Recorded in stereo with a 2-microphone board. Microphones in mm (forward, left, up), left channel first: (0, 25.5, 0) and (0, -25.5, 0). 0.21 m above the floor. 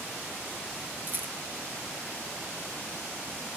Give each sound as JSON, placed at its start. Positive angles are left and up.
{"t": 1.1, "sound": "a rattle", "side_deg": -40, "distance_m": 0.8}